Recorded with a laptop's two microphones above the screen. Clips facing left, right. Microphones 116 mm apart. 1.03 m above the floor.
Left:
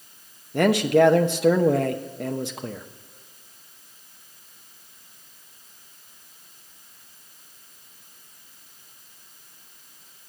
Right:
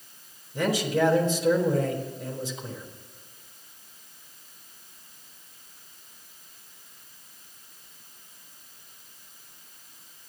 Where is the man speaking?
70° left (ahead or behind), 0.8 m.